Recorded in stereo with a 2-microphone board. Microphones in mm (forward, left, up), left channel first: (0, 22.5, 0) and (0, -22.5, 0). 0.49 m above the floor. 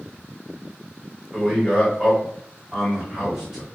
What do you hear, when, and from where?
1.3 s a man speaking: 10° right (ahead or behind), 1.7 m